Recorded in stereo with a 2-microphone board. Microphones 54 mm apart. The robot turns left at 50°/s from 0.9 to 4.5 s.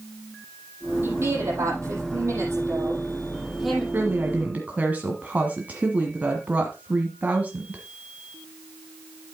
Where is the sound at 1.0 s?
45° right, 7.5 m; by 3.8 s 175° left, 7.5 m.